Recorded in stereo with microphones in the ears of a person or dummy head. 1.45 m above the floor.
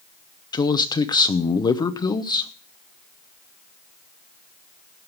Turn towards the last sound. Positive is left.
turn(degrees=20)  # may be behind; listen again after turning